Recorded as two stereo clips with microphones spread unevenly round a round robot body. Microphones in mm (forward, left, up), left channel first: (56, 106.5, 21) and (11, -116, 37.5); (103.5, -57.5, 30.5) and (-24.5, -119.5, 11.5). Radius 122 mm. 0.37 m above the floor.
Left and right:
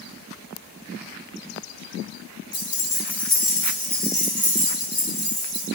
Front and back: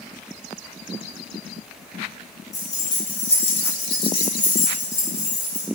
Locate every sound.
2.5 s keys jangling: 80° left, 0.6 m; by 5.7 s 30° right, 1.6 m